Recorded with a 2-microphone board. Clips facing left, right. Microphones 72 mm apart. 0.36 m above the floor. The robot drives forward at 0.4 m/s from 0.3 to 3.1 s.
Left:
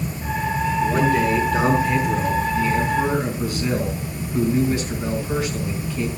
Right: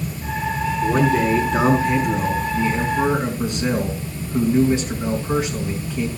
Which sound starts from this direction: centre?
A man speaking, at 0.8 s.